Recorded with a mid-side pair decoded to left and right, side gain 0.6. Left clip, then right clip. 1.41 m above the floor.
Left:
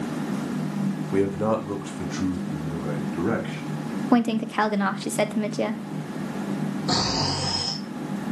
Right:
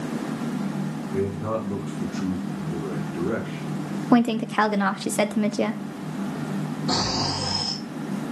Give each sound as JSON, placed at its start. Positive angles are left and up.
{"t": 1.1, "sound": "a man speaking", "azimuth_deg": 65, "distance_m": 1.9}
{"t": 4.1, "sound": "a woman speaking", "azimuth_deg": -10, "distance_m": 0.6}
{"t": 6.9, "sound": "snoring", "azimuth_deg": 20, "distance_m": 3.0}